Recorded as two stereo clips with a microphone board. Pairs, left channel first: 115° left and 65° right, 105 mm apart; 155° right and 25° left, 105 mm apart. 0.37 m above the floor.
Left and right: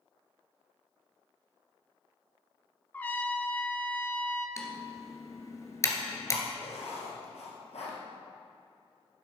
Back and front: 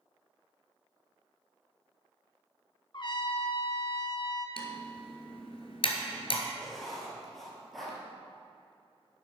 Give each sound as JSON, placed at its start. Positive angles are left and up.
{"t": 2.9, "sound": "a trumpet", "azimuth_deg": 180, "distance_m": 0.6}
{"t": 4.6, "sound": "typing on a keyboard", "azimuth_deg": 175, "distance_m": 1.4}
{"t": 6.6, "sound": "writing", "azimuth_deg": 115, "distance_m": 2.5}